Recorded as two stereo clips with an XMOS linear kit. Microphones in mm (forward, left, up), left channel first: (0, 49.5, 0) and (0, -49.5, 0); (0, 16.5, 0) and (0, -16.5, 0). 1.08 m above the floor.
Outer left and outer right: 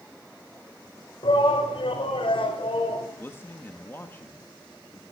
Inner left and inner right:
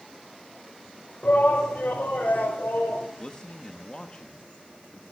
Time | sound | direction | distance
1.2 | a shout | 65° left (ahead or behind) | 5.5 m
3.2 | a man speaking | 25° left (ahead or behind) | 1.5 m